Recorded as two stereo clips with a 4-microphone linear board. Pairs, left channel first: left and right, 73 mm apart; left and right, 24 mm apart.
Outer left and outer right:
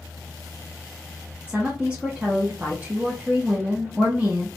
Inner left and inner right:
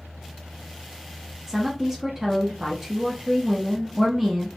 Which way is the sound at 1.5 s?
20° right (ahead or behind).